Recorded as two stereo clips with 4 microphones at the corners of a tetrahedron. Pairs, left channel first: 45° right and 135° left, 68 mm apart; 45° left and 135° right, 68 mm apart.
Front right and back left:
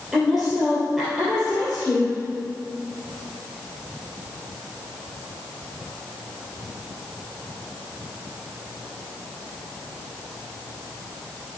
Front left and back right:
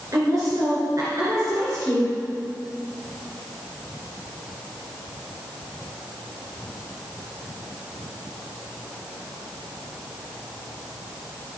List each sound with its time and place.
0.1 s a woman speaking: 135° right, 2.5 m